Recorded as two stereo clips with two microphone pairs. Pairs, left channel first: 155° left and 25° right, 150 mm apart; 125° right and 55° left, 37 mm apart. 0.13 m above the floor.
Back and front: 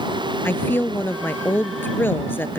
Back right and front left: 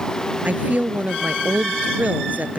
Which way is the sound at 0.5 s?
85° left.